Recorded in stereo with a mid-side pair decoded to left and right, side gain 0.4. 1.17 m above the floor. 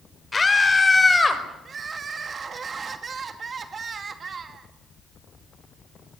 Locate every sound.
0.3 s a scream: 30° left, 4.5 m; by 1.4 s 20° left, 5 m
1.6 s crying: 45° right, 2 m